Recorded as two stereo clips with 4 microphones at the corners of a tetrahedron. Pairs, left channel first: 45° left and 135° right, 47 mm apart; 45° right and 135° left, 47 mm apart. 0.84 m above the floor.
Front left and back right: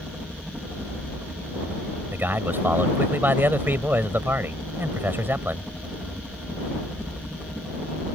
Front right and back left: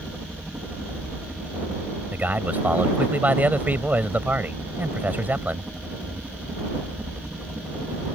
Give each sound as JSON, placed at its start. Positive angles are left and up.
{"t": 0.0, "sound": "a helicopter", "azimuth_deg": 170}
{"t": 2.1, "sound": "a man speaking", "azimuth_deg": -175}